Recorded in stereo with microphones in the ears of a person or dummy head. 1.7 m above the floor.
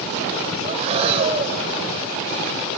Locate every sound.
0.6 s breathing: 40° right (ahead or behind), 1.2 m